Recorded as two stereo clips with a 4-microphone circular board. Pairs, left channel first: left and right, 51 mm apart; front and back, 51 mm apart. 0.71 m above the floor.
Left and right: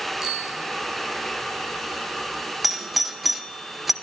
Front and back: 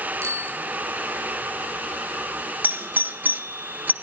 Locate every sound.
0.2 s a bicycle bell: 170° right, 5 m
2.6 s a doorbell: straight behind, 1.1 m